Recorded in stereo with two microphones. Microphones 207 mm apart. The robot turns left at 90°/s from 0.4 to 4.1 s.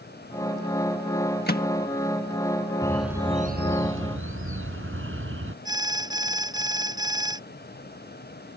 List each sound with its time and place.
1.5 s a microwave: 50° left (ahead or behind); by 1.7 s 45° left (ahead or behind)
2.8 s a bird: 15° left; by 5.5 s 100° right
5.7 s an alarm: 20° right (ahead or behind)